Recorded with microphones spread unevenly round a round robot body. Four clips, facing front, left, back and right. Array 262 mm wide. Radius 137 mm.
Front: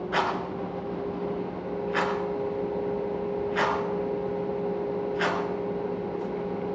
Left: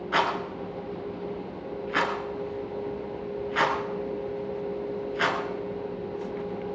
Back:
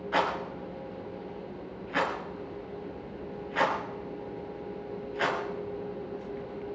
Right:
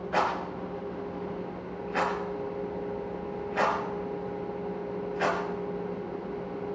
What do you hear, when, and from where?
0.1 s a rattle: 85° left, 3.5 m